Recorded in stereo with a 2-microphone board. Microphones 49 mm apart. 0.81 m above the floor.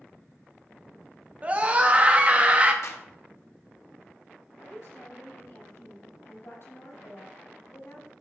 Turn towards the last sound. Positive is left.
turn(degrees=60)  # may be behind; listen again after turning